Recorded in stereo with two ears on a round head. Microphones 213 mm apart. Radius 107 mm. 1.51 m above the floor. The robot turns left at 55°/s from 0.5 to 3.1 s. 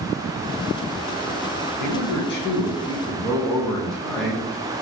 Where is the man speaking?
75° left, 0.7 m; by 4.5 s straight ahead, 0.7 m.